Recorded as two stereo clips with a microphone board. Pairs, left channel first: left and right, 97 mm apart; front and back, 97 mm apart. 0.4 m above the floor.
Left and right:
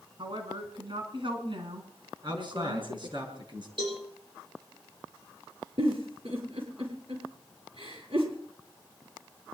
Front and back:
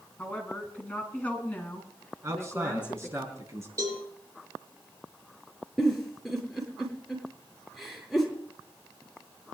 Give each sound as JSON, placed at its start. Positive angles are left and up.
{"t": 0.2, "sound": "a woman speaking", "azimuth_deg": -75, "distance_m": 4.5}
{"t": 2.2, "sound": "a man speaking", "azimuth_deg": -120, "distance_m": 5.0}
{"t": 3.8, "sound": "a cowbell", "azimuth_deg": -125, "distance_m": 10.0}
{"t": 5.8, "sound": "a giggle", "azimuth_deg": -90, "distance_m": 7.5}